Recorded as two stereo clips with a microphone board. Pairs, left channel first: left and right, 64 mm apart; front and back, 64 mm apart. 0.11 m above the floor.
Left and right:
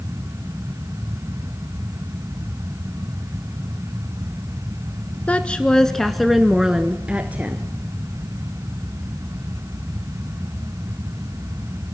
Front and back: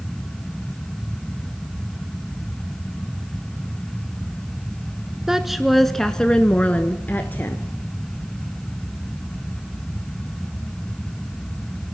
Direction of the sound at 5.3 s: 110° left.